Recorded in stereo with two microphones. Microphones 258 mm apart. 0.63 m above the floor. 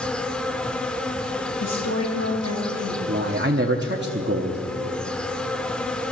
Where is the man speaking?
45° right (ahead or behind), 1.0 m.